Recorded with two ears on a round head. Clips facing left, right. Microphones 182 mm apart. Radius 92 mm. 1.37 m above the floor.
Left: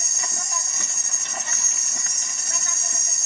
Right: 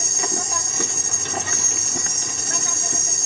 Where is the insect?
50° right (ahead or behind).